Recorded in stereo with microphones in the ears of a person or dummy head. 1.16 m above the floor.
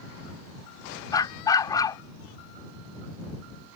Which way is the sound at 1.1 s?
20° left (ahead or behind).